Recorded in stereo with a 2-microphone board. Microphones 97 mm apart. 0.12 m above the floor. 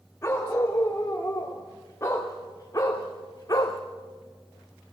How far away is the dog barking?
About 7 m.